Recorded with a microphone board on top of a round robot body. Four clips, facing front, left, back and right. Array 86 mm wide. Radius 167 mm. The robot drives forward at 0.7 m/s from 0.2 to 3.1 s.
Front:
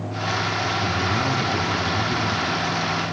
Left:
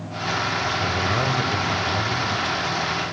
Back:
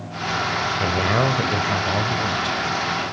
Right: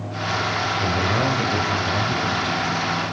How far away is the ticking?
No ticking in this recording.